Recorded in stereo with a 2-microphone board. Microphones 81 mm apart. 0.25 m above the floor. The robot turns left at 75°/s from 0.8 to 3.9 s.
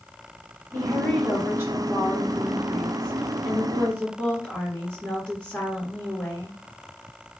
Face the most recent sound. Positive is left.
turn(degrees=170)